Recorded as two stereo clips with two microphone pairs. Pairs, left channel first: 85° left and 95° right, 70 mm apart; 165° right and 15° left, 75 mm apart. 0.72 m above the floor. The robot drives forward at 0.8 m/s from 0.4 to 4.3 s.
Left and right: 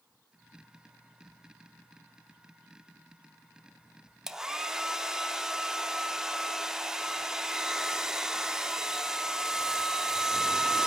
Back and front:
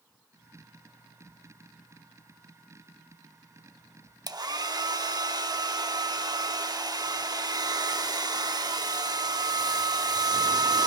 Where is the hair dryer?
15° right, 0.8 m.